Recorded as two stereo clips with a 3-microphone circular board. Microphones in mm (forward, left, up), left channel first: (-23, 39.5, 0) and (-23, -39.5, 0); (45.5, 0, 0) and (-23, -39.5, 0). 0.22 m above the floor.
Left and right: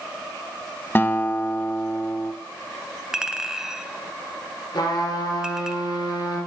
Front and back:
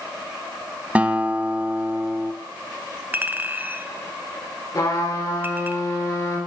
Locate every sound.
0.9 s a guitar: 145° left, 0.6 m
3.1 s a clink: 160° right, 0.6 m
4.7 s a trumpet: 60° left, 3 m